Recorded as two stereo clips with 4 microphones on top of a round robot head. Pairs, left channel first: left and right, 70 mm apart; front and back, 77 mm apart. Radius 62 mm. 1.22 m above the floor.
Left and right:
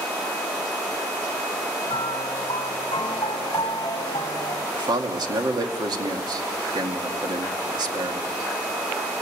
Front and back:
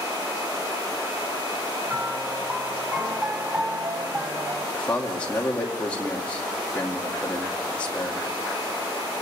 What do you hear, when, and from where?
1.9 s a piano: 120° left, 1.8 m
4.7 s a man speaking: 75° right, 2 m